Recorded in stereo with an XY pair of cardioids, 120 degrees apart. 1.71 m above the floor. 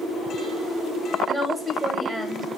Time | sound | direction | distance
1.3 | a woman speaking | 5° right | 0.5 m